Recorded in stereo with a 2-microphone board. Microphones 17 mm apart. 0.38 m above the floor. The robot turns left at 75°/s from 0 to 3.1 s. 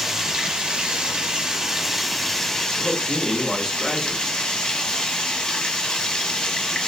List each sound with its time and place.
0.0 s running water: 30° right, 1.1 m; by 6.9 s 100° left, 1.1 m
2.8 s a man speaking: 40° left (ahead or behind), 1.2 m; by 4.3 s 25° left (ahead or behind), 1.2 m